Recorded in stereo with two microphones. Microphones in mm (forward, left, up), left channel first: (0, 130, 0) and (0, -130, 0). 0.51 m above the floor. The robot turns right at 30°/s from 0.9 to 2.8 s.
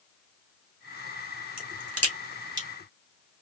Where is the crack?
70° right (ahead or behind), 2.5 m; by 2.7 s 40° right (ahead or behind), 2.5 m.